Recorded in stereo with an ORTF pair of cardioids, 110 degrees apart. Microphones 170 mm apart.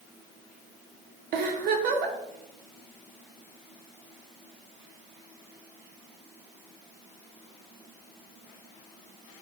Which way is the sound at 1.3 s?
65° right.